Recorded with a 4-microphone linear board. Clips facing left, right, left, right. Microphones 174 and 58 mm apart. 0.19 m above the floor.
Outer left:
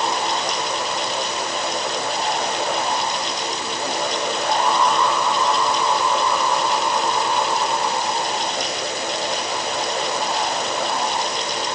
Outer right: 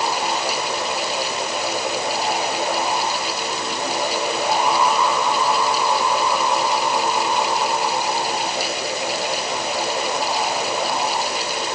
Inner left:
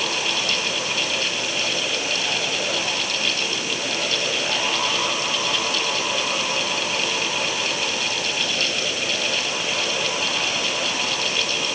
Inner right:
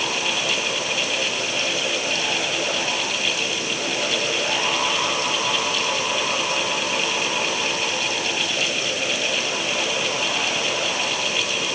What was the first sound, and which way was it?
Only background noise.